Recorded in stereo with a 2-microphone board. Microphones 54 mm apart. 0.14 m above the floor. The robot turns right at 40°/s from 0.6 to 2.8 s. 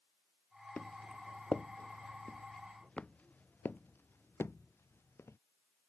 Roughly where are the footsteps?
Left.